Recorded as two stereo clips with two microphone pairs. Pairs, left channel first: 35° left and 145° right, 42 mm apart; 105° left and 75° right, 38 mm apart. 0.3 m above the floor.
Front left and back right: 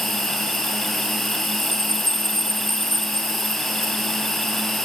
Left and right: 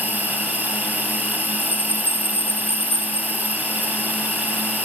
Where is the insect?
45° right, 5 m.